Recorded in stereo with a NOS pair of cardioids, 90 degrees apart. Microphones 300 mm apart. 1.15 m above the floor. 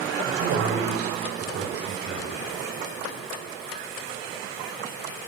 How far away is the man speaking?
About 6.5 m.